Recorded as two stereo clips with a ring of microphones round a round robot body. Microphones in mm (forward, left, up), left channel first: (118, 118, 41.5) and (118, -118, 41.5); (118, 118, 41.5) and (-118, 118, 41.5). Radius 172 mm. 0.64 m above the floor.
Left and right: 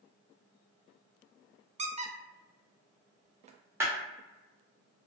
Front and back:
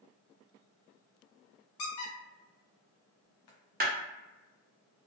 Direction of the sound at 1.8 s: 25° right.